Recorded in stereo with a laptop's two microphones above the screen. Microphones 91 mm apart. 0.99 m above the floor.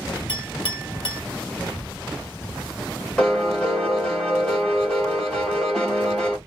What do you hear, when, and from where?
0.3 s a clink: 85° left, 1.7 m
3.2 s a piano: 10° left (ahead or behind), 1.5 m